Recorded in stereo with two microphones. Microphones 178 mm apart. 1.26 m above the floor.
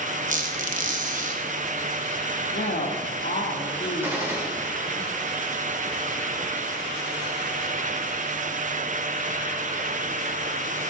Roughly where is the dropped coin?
No dropped coin in this recording.